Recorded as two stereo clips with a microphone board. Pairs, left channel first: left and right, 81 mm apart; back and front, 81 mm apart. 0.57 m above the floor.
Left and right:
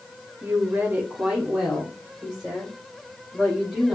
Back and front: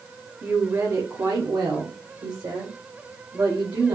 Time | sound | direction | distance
0.4 | a woman speaking | 60° right | 0.8 m